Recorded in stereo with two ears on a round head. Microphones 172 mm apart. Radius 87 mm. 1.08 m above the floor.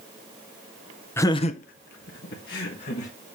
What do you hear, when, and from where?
1.2 s laughter: 10° left (ahead or behind), 0.6 m; by 3.1 s 55° left (ahead or behind), 1.8 m